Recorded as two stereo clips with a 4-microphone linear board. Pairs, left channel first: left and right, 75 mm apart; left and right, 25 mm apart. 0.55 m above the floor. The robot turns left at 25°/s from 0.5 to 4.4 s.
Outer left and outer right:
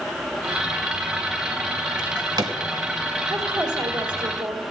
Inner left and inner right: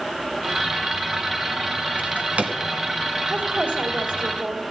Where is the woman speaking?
55° right (ahead or behind), 2 m; by 4.6 s 65° right (ahead or behind), 2 m.